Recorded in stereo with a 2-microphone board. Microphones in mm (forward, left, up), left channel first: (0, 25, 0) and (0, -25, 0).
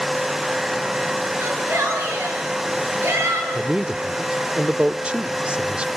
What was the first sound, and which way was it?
A shout, 65° right (ahead or behind).